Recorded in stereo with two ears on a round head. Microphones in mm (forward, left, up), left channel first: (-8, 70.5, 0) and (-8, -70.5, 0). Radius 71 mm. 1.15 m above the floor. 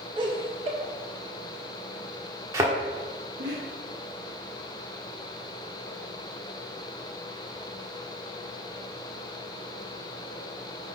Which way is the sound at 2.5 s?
20° right (ahead or behind).